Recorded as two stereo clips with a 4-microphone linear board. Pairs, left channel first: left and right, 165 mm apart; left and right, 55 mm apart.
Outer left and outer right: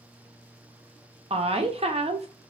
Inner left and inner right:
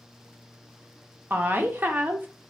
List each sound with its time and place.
1.3 s a woman speaking: 35° right (ahead or behind), 0.7 m